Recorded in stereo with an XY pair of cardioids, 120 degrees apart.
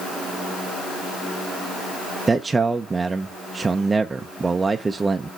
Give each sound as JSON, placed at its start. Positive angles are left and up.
{"t": 2.3, "sound": "a man speaking", "azimuth_deg": -20, "distance_m": 0.7}